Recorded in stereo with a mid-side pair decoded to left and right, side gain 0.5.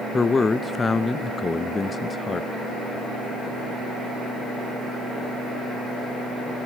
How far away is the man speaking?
About 0.6 m.